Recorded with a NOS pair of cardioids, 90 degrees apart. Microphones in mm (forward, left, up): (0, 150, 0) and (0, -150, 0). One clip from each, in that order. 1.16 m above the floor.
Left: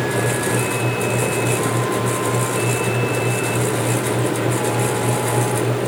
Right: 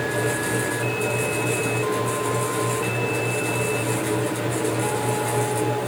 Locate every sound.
0.0 s a fan: 30° left, 0.8 m